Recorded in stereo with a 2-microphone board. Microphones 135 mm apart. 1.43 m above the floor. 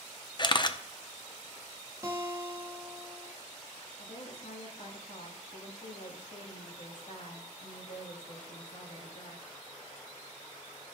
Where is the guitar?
20° right (ahead or behind), 1.7 m.